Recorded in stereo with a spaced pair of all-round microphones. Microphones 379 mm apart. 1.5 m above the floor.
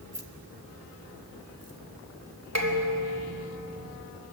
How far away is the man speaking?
I don't hear a man speaking.